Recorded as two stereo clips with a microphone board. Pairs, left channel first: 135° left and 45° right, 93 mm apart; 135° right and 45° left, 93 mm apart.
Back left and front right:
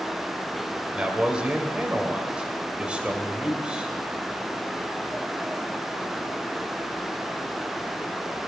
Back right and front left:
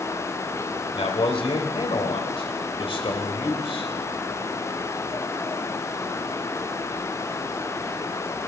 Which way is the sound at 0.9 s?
120° right.